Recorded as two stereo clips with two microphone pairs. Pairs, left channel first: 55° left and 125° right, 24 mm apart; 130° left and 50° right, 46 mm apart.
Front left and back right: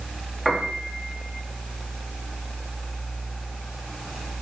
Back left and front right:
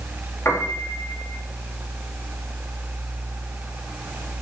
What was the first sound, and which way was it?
A piano, 150° left.